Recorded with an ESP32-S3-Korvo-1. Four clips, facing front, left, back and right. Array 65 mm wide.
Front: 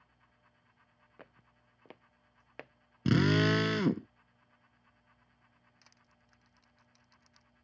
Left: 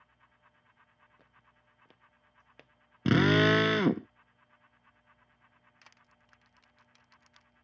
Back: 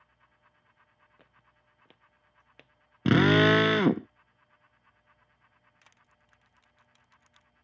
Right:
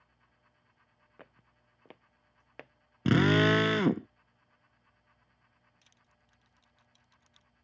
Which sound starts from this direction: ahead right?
Footsteps, at 1.2 s.